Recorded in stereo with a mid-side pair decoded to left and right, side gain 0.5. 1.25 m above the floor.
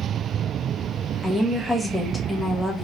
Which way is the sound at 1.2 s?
15° left.